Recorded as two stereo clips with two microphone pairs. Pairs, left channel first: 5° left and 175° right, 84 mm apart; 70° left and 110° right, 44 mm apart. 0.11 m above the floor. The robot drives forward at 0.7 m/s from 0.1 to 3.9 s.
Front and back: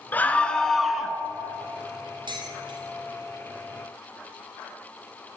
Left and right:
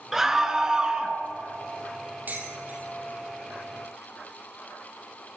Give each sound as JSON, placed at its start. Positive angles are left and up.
{"t": 0.1, "sound": "a scream", "azimuth_deg": -35, "distance_m": 1.5}
{"t": 2.3, "sound": "dishes clattering", "azimuth_deg": -150, "distance_m": 2.5}